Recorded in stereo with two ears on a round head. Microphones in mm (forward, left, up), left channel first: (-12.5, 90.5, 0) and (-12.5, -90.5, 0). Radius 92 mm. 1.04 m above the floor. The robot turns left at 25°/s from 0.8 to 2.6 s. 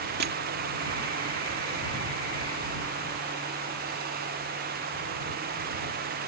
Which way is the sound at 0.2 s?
55° right (ahead or behind).